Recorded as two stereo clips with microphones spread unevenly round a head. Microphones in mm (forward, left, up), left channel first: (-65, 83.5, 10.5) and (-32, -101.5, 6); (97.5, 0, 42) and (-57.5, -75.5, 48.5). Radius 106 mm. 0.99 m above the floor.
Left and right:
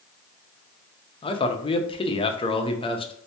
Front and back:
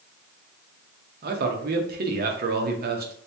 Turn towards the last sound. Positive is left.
turn(degrees=165)